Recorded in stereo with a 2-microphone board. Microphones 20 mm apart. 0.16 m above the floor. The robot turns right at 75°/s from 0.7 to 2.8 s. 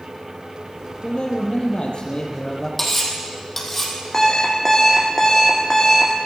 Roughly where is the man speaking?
Ahead left.